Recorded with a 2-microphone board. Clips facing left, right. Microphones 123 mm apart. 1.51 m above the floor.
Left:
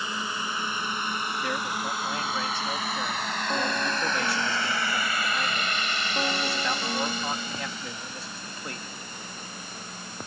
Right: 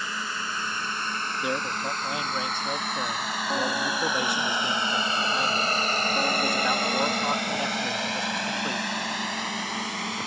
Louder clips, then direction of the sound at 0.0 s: Left 1 dB; 20° left (ahead or behind).